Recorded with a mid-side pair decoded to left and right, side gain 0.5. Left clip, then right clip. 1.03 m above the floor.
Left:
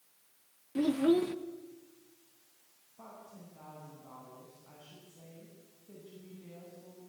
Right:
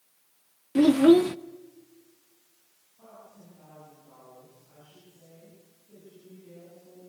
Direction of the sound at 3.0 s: 60° left.